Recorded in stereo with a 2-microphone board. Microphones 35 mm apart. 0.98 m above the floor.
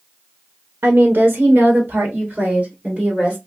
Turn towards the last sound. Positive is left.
turn(degrees=-25)  # may be behind; listen again after turning